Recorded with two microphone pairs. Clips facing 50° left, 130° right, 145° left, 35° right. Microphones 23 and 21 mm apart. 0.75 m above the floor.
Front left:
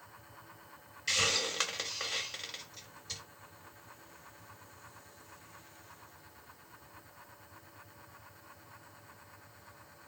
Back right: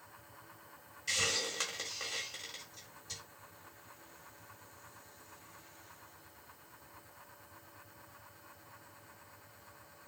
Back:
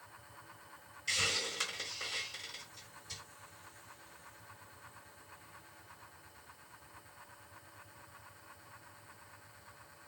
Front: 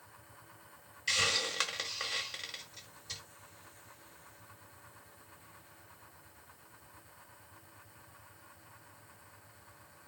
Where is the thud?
I don't hear a thud.